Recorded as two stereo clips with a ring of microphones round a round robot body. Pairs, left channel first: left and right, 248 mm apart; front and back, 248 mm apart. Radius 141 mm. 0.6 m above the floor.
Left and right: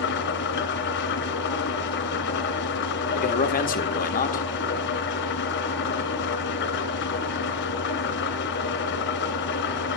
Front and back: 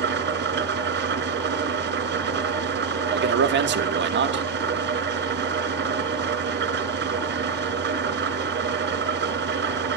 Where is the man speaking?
145° left, 1.6 m.